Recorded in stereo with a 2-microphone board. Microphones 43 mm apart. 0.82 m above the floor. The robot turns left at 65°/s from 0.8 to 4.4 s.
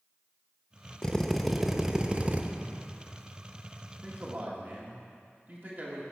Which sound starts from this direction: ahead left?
A drill, at 1.0 s.